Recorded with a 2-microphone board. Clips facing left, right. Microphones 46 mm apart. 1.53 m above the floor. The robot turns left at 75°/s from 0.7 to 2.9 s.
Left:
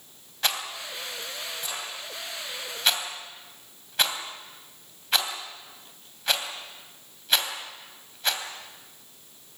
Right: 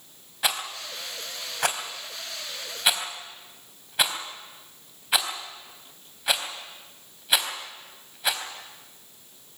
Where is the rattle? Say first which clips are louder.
Right 1 dB; 5° right (ahead or behind), 3 m.